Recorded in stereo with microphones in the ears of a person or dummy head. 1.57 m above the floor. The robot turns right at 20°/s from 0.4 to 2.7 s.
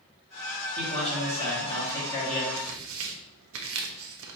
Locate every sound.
0.8 s a man speaking: 135° left, 1.7 m; by 2.5 s 170° left, 1.7 m
2.6 s tearing paper: 60° right (ahead or behind), 0.6 m; by 4.4 s 65° right (ahead or behind), 0.6 m